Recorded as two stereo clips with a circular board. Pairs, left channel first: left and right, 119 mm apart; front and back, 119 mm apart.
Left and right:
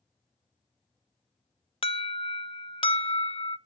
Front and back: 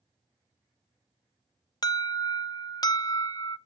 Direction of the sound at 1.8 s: 55° left.